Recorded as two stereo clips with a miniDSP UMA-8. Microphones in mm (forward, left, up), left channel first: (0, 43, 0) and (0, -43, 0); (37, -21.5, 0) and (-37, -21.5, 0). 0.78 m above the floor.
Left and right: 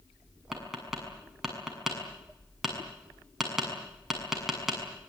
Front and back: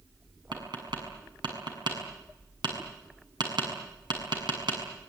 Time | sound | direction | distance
0.5 | tapping | 175° right | 7 m